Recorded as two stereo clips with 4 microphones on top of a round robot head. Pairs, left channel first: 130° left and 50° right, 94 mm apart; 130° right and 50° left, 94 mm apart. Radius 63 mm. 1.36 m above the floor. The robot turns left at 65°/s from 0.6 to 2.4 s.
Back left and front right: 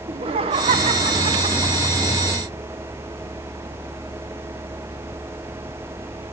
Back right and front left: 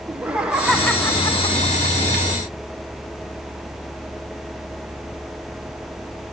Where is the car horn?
No car horn in this recording.